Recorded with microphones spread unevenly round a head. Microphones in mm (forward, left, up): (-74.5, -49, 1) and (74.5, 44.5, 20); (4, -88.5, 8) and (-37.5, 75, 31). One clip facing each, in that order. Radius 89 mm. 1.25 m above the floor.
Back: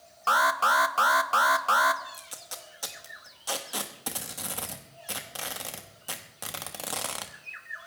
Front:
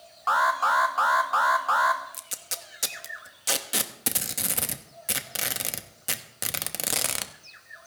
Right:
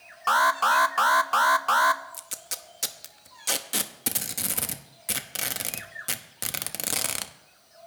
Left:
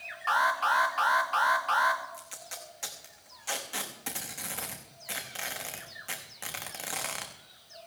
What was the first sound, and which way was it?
An alarm, 95° right.